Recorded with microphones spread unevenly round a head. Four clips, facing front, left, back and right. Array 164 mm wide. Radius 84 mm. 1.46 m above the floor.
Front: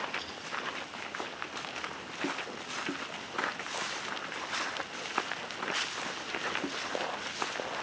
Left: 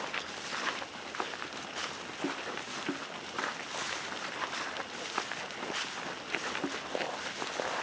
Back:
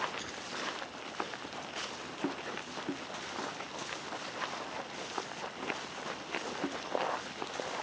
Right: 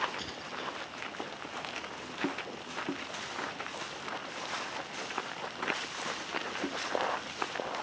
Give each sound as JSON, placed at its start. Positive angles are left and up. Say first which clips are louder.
{"t": 0.2, "sound": "keys jangling", "louder": "left 1 dB, front 2 dB", "azimuth_deg": -105}